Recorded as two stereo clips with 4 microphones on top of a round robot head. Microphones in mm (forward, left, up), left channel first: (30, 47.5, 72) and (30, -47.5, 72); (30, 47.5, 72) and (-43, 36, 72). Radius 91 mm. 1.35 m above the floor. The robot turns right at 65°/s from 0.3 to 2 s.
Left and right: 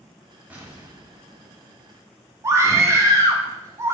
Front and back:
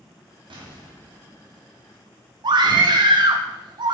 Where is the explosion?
170° right, 4 m; by 2.0 s 70° right, 4 m.